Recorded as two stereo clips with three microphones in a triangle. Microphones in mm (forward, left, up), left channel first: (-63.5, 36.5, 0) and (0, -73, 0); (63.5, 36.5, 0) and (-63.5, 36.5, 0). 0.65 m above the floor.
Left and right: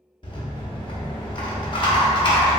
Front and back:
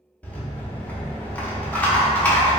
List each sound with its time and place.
0.2 s a rattle: 75° left, 0.7 m